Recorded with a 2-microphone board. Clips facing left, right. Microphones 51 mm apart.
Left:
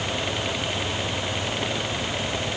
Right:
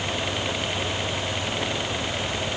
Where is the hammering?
No hammering in this recording.